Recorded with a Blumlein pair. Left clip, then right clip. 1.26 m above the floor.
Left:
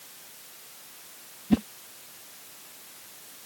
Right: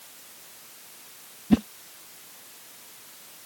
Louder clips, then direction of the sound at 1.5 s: Right 3 dB; 10° right.